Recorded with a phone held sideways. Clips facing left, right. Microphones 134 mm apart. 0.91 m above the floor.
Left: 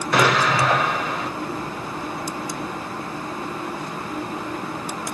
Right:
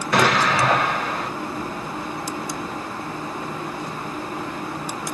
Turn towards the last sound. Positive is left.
turn(degrees=0)  # may be behind; listen again after turning